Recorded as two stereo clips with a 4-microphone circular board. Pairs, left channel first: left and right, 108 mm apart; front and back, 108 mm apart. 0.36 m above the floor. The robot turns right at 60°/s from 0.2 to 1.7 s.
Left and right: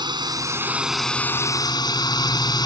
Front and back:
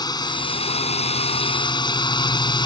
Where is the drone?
50° right; by 2.7 s 40° left.